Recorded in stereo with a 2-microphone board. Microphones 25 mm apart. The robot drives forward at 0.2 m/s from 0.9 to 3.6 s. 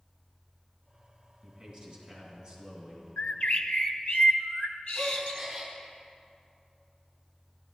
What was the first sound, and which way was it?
A man speaking, 40° right (ahead or behind).